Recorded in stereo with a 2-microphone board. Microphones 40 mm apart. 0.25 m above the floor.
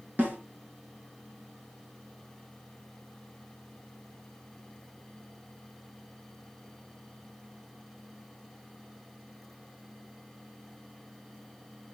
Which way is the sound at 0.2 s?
50° right (ahead or behind).